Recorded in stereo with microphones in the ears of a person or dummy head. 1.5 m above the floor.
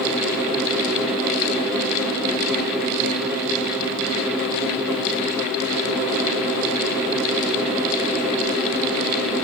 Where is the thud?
I don't hear a thud.